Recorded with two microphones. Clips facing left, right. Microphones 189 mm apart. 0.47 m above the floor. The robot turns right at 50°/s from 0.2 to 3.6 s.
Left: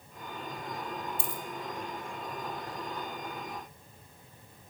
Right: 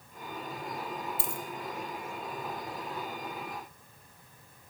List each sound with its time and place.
1.2 s a dropped coin: 40° right (ahead or behind), 1.0 m; by 1.4 s 50° right (ahead or behind), 1.0 m